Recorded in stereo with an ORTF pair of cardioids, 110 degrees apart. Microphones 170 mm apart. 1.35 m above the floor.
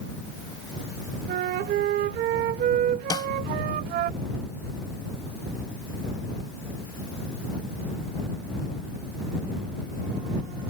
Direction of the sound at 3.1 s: 25° left.